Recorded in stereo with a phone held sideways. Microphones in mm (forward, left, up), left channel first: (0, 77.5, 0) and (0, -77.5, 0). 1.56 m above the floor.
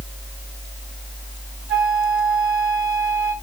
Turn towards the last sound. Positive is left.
turn(degrees=-5)  # may be behind; listen again after turning